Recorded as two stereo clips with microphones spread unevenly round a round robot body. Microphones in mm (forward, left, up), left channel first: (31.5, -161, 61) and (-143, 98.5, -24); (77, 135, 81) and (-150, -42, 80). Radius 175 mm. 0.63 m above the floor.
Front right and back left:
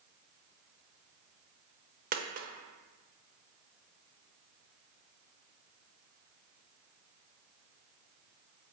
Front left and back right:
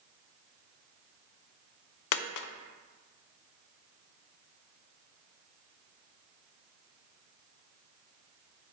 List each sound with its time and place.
2.1 s a dropped coin: 55° left, 0.6 m